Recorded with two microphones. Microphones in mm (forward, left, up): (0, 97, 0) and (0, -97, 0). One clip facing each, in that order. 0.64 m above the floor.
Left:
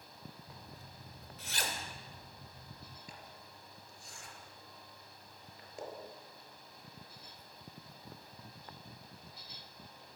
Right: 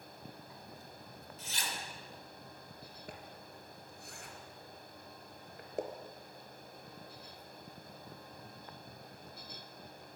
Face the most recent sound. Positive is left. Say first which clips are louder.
# right 4 dB
turn(degrees=-60)  # may be behind; listen again after turning